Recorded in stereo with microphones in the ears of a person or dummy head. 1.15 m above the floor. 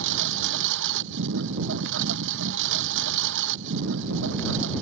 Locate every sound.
0.0 s a lawn mower: 70° right (ahead or behind)